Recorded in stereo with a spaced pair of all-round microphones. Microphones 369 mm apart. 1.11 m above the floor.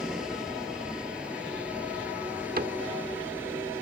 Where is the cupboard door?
25° right (ahead or behind).